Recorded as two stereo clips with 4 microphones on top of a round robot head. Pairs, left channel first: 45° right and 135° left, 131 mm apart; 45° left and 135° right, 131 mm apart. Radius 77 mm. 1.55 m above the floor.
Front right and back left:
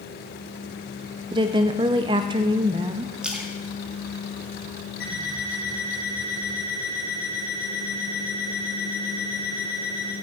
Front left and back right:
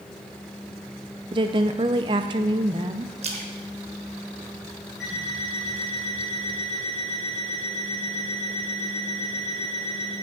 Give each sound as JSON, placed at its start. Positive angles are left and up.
{"t": 1.3, "sound": "a woman speaking", "azimuth_deg": 180, "distance_m": 0.5}
{"t": 3.2, "sound": "a splash", "azimuth_deg": -145, "distance_m": 1.1}
{"t": 5.0, "sound": "an alarm clock", "azimuth_deg": -50, "distance_m": 6.0}